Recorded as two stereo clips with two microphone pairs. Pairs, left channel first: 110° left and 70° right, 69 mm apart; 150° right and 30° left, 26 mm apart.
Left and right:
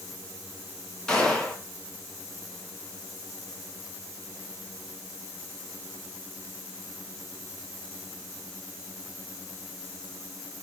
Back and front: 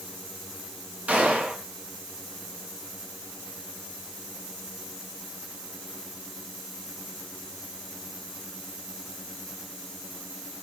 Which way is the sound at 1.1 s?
30° left.